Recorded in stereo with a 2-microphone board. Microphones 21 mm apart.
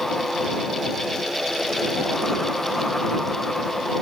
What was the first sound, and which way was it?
Only background noise.